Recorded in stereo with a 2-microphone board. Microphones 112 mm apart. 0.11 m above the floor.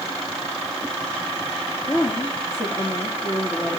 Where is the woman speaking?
35° left (ahead or behind), 2.5 m.